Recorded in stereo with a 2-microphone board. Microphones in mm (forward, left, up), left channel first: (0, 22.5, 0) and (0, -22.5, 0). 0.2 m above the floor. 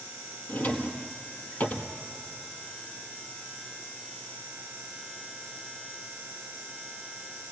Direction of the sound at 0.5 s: 40° left (ahead or behind).